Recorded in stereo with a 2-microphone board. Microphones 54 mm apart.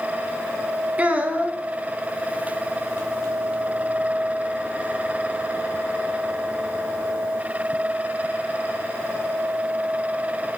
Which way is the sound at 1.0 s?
25° right (ahead or behind).